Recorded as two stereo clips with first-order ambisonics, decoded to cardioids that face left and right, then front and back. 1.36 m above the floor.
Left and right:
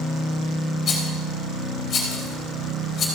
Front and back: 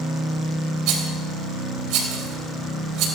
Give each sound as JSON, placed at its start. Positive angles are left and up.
{"t": 0.9, "sound": "a rattle", "azimuth_deg": 150, "distance_m": 4.0}